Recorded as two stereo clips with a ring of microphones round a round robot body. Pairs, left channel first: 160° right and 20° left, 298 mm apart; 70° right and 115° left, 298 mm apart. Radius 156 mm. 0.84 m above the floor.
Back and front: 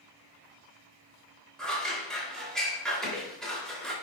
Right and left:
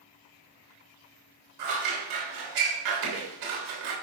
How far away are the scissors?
About 3.5 m.